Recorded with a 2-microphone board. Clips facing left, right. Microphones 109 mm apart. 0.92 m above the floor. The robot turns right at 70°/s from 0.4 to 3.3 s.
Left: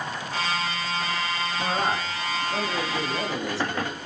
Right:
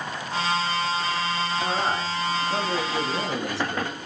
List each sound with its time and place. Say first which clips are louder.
1.6 s a man speaking: left 2 dB; 155° left, 8.5 m; by 4.0 s 85° right, 8.5 m